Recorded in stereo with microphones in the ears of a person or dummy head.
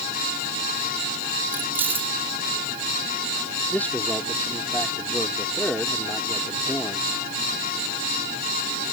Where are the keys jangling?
10° right (ahead or behind).